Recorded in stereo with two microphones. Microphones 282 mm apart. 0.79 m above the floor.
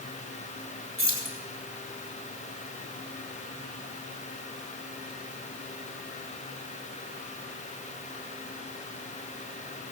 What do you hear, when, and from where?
1.0 s keys jangling: 50° right (ahead or behind), 2.5 m